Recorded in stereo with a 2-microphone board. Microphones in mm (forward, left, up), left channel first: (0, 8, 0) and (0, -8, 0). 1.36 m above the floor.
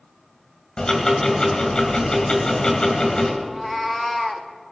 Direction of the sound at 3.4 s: 5° left (ahead or behind).